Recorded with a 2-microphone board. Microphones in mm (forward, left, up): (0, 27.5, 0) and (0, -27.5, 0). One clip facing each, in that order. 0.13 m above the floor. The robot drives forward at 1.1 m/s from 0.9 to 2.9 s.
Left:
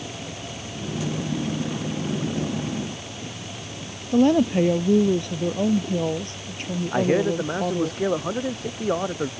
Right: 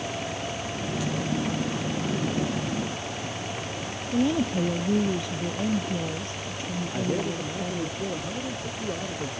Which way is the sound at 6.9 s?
80° left.